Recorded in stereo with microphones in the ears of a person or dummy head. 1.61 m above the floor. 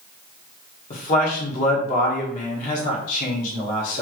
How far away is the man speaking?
About 1.6 m.